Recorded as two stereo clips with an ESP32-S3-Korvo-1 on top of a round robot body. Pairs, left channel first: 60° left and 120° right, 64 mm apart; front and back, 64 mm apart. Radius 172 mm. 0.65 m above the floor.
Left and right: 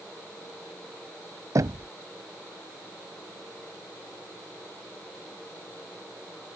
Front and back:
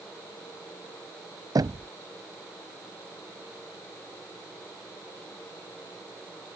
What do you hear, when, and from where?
1.6 s knocking: 155° right